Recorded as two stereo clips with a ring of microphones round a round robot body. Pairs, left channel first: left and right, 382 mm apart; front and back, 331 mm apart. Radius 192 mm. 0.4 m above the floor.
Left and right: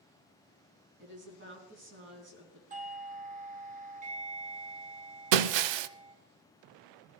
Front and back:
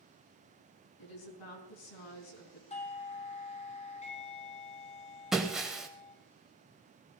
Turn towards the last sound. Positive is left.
turn(degrees=-90)